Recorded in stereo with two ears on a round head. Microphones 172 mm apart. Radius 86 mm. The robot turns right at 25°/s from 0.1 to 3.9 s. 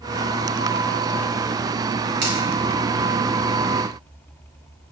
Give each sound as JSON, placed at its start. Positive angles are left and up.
{"t": 2.2, "sound": "a finger snap", "side_deg": -60, "distance_m": 4.5}